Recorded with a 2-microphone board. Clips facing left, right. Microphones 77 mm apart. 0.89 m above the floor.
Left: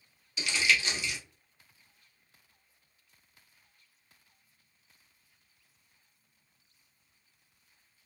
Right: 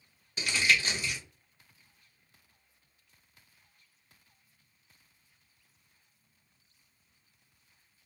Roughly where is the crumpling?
Right.